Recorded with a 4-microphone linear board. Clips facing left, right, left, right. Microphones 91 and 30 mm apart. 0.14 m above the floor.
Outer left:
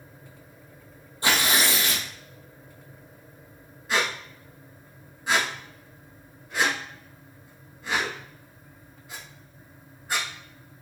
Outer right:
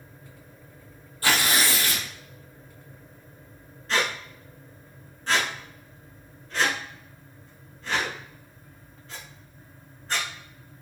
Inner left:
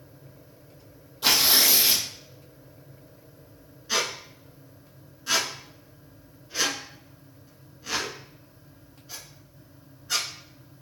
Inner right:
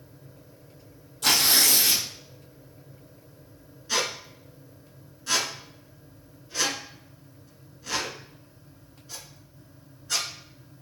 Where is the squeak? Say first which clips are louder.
Even, even; 10° left (ahead or behind), 1.0 m.